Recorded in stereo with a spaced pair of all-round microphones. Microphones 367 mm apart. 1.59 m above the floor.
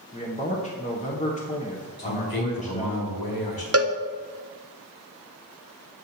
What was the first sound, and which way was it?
A man speaking, 20° left (ahead or behind).